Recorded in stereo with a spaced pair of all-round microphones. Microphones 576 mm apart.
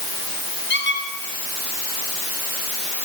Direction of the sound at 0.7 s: 60° left (ahead or behind).